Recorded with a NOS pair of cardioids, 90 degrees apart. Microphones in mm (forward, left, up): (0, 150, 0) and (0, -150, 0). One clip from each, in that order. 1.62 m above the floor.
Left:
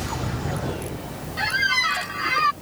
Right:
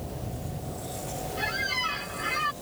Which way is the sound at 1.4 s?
55° left.